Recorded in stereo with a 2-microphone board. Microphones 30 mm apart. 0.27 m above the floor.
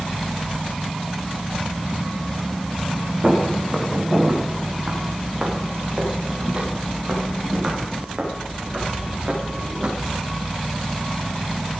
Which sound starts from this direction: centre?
Footsteps, at 3.2 s.